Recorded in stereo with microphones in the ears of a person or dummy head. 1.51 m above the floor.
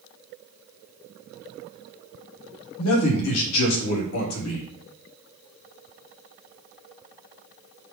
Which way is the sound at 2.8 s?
85° left.